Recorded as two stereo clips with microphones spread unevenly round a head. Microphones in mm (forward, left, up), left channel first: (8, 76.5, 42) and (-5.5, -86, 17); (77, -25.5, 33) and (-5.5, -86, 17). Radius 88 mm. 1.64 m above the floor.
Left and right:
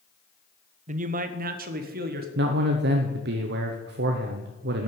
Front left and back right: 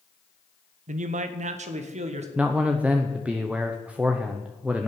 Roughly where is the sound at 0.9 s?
Behind right.